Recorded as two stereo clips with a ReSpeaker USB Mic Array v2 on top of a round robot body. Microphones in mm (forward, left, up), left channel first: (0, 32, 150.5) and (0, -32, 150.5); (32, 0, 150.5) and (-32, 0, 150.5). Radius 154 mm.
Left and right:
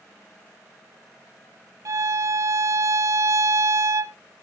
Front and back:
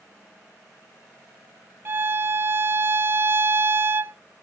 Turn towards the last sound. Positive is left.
turn(degrees=-125)